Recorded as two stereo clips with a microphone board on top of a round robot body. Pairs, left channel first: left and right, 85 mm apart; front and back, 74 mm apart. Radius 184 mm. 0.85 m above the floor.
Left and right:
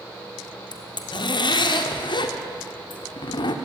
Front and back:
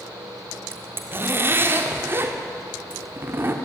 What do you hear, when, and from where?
0.7 s a zipper: 120° left, 1.7 m